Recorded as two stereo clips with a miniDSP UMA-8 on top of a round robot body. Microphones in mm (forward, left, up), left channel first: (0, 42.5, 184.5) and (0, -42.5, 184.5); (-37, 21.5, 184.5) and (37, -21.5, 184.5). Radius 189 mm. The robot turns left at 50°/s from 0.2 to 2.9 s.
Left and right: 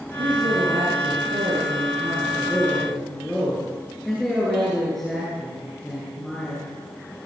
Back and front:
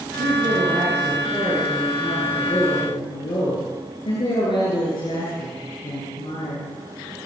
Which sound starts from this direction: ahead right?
A man speaking, at 0.2 s.